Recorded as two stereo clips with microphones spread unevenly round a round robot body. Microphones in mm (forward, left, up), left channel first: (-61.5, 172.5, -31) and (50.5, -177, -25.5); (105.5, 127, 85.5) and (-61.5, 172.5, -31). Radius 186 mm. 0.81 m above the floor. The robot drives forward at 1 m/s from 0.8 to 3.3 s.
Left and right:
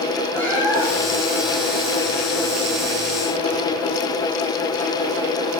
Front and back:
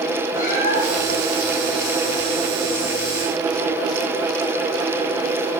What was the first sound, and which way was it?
A cat meowing, 20° left.